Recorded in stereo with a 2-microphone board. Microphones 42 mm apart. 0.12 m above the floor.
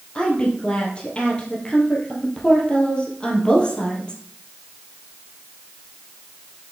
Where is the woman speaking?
25° left (ahead or behind), 2.5 m.